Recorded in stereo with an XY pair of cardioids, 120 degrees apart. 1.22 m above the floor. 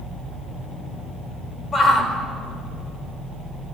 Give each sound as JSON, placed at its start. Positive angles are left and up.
{"t": 1.7, "sound": "a shout", "azimuth_deg": 10, "distance_m": 4.5}